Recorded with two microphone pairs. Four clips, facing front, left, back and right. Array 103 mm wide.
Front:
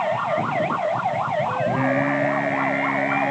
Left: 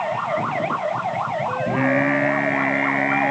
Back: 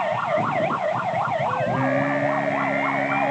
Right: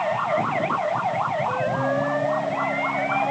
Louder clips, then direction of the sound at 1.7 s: Left 3 dB, front 1 dB; 75° left.